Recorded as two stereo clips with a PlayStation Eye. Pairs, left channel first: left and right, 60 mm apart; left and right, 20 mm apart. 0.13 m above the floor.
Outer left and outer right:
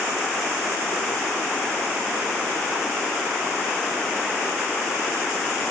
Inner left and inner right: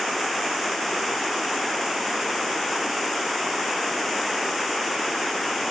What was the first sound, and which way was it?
Only background noise.